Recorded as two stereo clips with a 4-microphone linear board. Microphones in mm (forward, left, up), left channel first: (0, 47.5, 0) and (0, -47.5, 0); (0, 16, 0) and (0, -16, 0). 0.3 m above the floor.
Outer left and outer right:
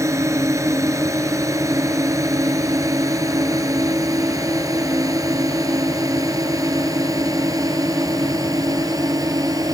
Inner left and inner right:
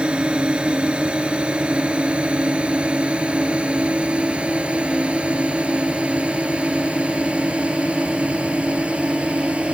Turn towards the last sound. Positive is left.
turn(degrees=-40)  # may be behind; listen again after turning